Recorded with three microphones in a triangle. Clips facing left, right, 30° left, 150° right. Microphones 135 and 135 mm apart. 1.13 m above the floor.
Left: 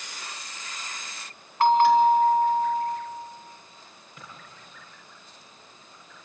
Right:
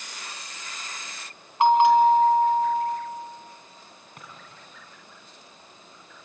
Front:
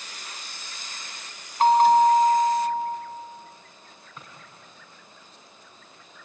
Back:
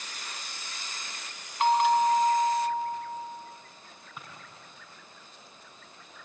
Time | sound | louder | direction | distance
1.6 | a bell | right 1 dB, front 6 dB | 20° right | 2.5 m
4.2 | a drawer | even, even | 70° right | 6 m